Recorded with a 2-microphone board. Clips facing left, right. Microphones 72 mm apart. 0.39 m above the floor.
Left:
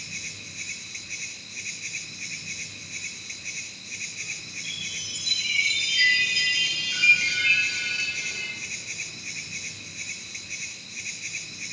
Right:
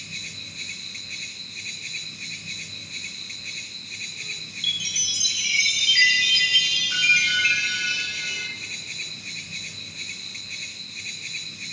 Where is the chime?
65° right (ahead or behind), 7 m.